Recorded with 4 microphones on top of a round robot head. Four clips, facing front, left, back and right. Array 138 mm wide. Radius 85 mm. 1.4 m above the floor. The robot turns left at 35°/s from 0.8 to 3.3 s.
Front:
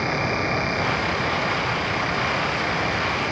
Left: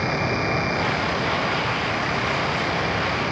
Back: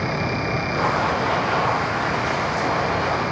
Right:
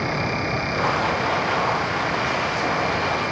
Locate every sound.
Only background noise.